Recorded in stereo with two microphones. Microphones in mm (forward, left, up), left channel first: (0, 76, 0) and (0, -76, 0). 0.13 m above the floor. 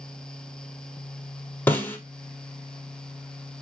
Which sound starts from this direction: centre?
A snare drum, at 1.7 s.